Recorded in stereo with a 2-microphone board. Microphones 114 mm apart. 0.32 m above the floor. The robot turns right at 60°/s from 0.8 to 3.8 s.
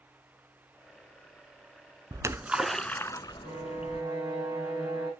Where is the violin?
50° right (ahead or behind), 4.5 m; by 5.1 s 30° right (ahead or behind), 4.5 m.